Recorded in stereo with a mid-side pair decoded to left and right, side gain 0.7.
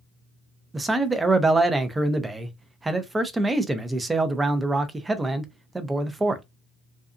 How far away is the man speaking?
About 0.7 m.